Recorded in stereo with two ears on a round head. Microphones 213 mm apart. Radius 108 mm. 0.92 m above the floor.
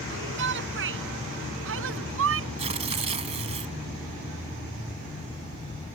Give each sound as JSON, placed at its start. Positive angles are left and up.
{"t": 0.1, "sound": "a shout", "side_deg": -55}
{"t": 2.6, "sound": "tearing paper", "side_deg": -30}